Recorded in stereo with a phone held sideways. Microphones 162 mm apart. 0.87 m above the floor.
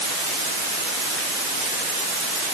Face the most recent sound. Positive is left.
No sound to turn to.